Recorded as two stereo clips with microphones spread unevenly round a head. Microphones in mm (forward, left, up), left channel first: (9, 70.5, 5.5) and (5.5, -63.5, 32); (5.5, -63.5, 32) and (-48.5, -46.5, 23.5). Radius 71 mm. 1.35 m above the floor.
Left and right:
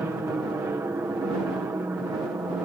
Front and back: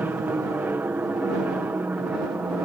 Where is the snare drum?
No snare drum in this recording.